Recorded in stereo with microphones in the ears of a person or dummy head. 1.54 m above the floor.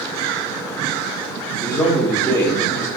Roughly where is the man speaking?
Left.